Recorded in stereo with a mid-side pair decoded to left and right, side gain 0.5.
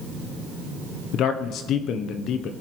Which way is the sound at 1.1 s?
70° left.